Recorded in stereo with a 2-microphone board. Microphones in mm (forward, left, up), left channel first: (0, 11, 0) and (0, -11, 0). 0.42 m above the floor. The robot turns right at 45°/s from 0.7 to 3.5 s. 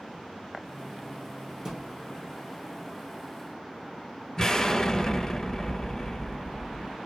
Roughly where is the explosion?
Left.